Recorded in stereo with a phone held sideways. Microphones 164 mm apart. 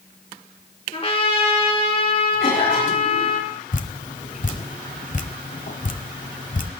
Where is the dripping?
55° left (ahead or behind), 1.1 m.